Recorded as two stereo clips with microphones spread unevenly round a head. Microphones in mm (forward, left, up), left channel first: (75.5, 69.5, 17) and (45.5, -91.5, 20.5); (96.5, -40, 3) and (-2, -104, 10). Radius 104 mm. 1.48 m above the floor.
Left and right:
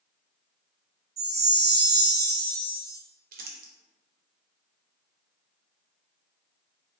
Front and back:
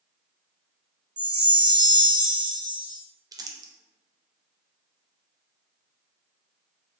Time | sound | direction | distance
1.2 | a chime | 105° right | 0.8 m
3.3 | crumpling | 100° right | 0.6 m